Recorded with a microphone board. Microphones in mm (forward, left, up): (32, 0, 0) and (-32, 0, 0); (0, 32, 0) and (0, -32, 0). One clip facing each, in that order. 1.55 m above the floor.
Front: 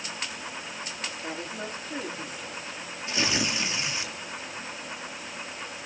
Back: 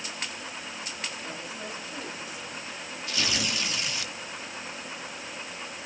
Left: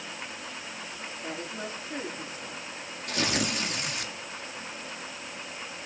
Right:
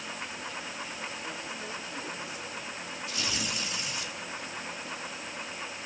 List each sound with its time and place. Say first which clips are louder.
1.2 s a woman speaking: front 3 dB, left 2 dB; 45° left, 4.5 m
3.1 s tearing paper: front 3 dB, left 7 dB; 65° left, 2.0 m